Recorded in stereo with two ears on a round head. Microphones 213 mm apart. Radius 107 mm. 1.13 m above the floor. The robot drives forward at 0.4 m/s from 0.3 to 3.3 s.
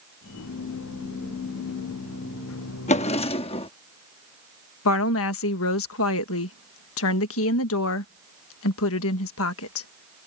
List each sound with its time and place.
2.9 s a drawer: 30° left (ahead or behind); by 3.7 s 25° left (ahead or behind)
4.8 s a woman speaking: 65° left (ahead or behind)